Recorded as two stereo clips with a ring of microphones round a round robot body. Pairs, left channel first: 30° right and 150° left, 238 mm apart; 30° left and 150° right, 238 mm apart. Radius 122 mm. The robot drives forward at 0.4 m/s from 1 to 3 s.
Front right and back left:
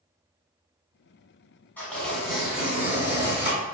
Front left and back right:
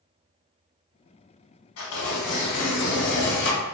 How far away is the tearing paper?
About 1.6 m.